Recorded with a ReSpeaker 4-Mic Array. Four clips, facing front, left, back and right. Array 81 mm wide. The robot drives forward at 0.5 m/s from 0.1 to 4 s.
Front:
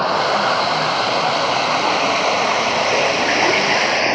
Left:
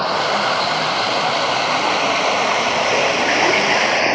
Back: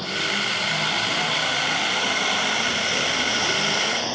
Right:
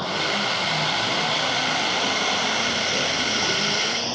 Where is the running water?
30° left; by 4.2 s 55° left.